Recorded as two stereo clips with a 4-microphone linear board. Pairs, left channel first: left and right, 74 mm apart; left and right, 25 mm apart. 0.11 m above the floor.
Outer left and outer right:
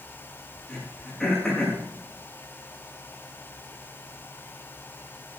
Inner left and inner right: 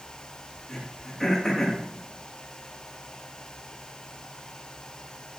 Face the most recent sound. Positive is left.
turn(degrees=5)  # may be behind; listen again after turning